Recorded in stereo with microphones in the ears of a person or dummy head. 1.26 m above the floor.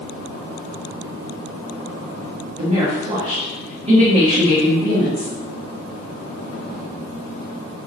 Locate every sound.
2.6 s a woman speaking: 35° right (ahead or behind), 1.6 m